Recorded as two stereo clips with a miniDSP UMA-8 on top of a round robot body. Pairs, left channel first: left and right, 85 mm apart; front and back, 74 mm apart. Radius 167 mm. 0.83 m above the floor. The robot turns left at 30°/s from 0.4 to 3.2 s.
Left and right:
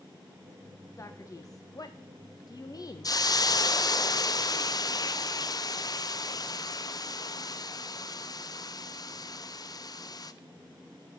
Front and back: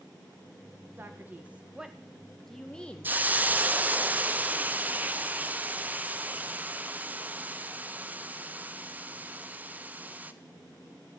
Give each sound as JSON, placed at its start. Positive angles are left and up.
{"t": 1.0, "sound": "a man speaking", "azimuth_deg": 130, "distance_m": 1.0}
{"t": 3.0, "sound": "a hiss", "azimuth_deg": 120, "distance_m": 0.8}